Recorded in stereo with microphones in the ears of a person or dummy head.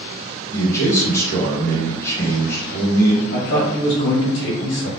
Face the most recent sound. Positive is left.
turn(degrees=65)  # may be behind; listen again after turning